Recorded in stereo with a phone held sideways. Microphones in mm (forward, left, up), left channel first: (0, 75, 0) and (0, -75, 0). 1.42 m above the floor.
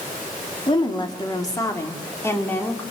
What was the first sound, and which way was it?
A woman speaking, 30° left (ahead or behind).